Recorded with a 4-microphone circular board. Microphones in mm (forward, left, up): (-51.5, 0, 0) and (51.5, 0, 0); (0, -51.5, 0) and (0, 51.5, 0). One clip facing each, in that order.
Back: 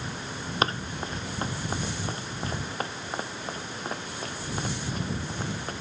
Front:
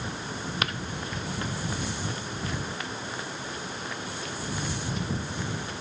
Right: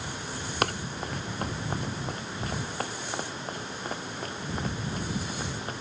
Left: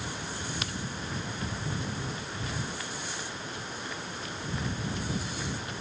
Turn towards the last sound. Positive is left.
turn(degrees=-135)